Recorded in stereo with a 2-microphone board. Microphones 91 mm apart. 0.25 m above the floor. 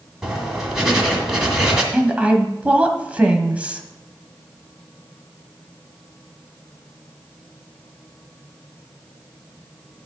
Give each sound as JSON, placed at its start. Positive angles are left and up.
{"t": 0.2, "sound": "writing", "side_deg": -5, "distance_m": 2.0}
{"t": 1.9, "sound": "a woman speaking", "side_deg": -15, "distance_m": 1.3}